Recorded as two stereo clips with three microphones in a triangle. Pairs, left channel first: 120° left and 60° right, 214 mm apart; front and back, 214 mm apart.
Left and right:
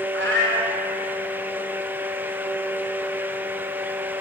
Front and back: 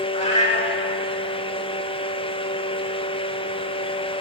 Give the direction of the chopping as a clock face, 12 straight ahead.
No chopping in this recording.